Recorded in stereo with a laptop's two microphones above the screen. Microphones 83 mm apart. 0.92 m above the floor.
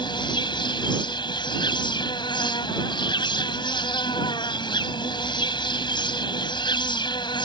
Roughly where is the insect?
Left.